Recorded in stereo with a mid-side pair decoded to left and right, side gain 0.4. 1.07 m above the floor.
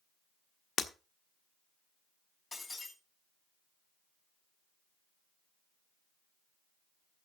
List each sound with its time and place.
0.8 s breaking glass: 55° left, 1.3 m
2.5 s breaking glass: 30° left, 6 m